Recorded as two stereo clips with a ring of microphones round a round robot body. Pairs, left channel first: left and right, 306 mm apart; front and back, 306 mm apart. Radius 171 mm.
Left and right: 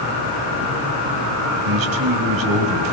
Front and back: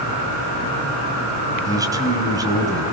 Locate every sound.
1.6 s a man speaking: 100° right, 4.5 m